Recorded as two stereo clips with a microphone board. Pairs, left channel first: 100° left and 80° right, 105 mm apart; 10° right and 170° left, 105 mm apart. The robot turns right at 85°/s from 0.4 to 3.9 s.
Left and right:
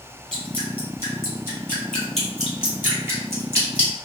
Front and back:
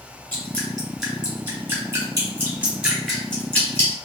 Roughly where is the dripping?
Ahead left.